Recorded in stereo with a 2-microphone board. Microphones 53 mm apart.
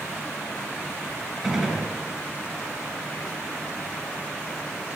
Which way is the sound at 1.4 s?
5° right (ahead or behind).